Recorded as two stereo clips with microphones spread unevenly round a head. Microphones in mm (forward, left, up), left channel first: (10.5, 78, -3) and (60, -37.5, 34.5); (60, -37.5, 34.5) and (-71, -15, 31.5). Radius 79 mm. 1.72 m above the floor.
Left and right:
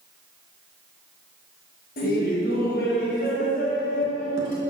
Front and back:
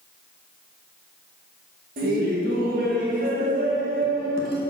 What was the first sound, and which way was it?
Laughter, 140° left.